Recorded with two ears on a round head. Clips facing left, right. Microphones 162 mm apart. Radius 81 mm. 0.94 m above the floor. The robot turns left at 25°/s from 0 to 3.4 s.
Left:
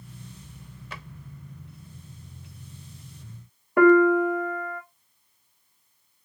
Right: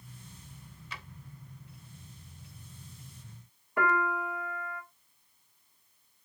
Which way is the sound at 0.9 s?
45° left (ahead or behind).